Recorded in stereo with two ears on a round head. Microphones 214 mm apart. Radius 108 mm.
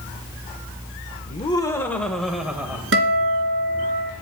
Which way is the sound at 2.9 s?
60° right (ahead or behind).